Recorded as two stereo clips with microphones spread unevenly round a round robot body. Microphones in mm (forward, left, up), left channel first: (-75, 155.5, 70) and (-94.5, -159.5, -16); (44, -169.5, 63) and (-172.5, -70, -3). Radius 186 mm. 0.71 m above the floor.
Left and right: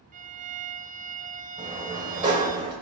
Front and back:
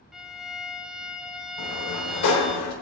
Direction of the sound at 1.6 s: 15° right.